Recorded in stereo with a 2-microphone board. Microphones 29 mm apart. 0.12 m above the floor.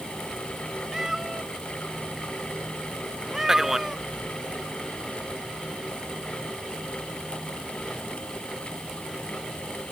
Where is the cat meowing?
15° right (ahead or behind).